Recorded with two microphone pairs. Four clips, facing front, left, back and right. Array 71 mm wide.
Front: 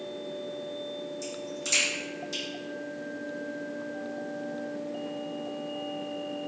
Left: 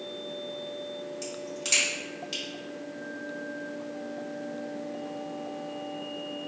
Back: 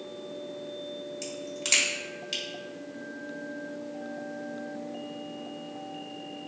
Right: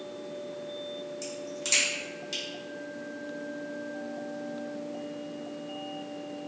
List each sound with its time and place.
1.2 s a crack: 175° left, 1.3 m